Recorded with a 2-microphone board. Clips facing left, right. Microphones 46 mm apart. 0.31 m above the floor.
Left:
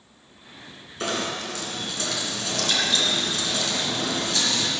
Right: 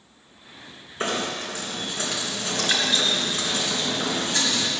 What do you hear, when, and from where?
1.0 s knocking: 25° right (ahead or behind), 3 m